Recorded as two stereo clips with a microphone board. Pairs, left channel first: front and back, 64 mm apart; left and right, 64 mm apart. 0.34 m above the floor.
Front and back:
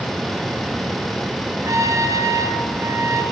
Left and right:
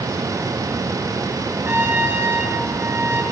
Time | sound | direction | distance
1.6 | a trumpet | 145° right | 5.5 m